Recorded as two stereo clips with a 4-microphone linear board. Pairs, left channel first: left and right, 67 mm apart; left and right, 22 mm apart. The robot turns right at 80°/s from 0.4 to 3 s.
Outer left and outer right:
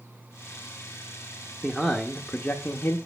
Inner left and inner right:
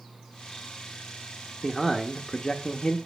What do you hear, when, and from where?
1.6 s a man speaking: 25° right, 0.8 m; by 3.0 s 80° left, 0.8 m